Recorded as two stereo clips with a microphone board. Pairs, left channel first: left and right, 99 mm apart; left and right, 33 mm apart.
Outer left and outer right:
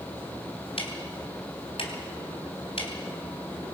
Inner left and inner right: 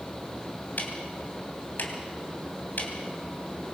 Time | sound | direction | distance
0.8 | ticking | 70° left (ahead or behind) | 3.5 m